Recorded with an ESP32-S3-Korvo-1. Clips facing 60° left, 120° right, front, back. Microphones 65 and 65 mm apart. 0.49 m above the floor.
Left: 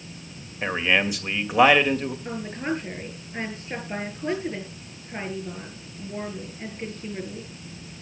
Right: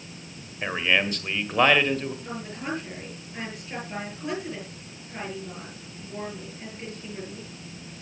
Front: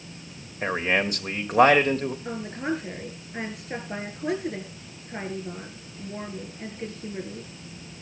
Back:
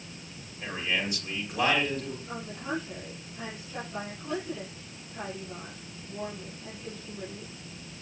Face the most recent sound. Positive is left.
turn(degrees=0)